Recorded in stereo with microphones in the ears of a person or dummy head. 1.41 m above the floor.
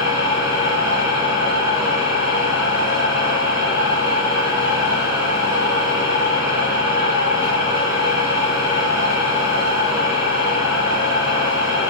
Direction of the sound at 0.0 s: 10° right (ahead or behind).